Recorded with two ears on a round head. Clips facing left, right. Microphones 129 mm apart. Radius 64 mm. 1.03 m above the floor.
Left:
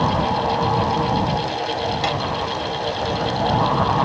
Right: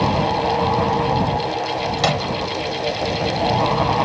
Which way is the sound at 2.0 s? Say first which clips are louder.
Right 3 dB; 60° right (ahead or behind).